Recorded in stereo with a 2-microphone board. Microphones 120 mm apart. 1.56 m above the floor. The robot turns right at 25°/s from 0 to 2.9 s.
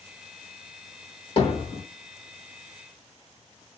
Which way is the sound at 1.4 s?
50° left (ahead or behind).